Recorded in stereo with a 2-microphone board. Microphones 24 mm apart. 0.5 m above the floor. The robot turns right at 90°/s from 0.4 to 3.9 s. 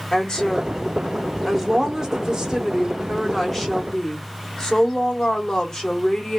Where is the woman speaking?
90° left, 1.2 m; by 6.4 s 45° left, 1.2 m.